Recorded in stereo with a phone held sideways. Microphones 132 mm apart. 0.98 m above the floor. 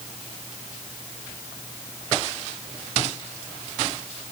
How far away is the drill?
No drill in this recording.